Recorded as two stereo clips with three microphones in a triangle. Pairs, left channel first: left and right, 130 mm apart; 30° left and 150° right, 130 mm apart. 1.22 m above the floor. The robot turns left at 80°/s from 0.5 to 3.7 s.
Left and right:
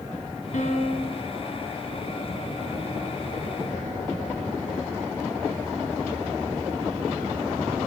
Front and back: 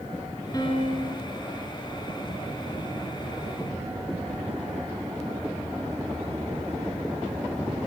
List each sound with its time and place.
0.5 s a piano: 90° left, 3 m; by 1.2 s 35° left, 3 m